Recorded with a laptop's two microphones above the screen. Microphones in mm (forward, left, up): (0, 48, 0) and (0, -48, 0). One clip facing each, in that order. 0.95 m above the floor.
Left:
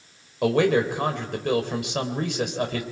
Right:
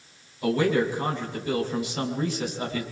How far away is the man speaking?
About 4.5 m.